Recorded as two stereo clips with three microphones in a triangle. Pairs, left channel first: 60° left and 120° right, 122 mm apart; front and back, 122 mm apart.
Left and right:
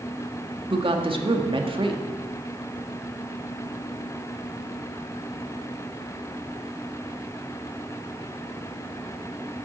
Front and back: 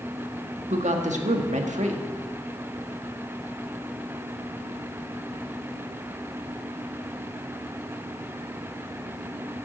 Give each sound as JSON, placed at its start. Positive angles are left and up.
{"t": 0.7, "sound": "a woman speaking", "azimuth_deg": -165, "distance_m": 1.6}